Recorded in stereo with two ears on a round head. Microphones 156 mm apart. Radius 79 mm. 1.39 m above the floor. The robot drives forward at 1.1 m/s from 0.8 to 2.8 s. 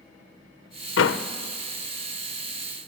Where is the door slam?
80° left, 0.7 m; by 1.2 s 65° left (ahead or behind), 0.8 m.